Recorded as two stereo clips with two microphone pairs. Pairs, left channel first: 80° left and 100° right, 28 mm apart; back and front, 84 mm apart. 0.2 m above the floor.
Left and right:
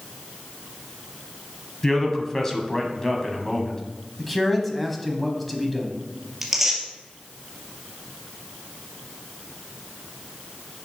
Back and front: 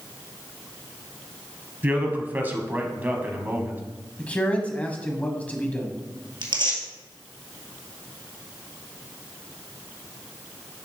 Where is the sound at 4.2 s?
155° left, 1.2 m.